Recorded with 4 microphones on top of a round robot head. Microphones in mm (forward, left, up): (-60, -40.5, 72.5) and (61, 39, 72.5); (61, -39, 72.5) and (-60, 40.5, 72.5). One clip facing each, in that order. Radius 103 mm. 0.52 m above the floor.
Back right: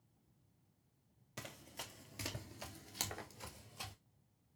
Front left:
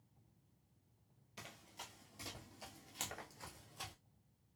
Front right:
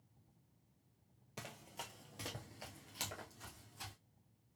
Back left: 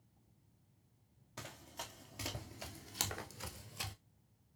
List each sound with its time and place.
1.4 s running footsteps: 110° right, 0.9 m; by 3.9 s 125° left, 0.8 m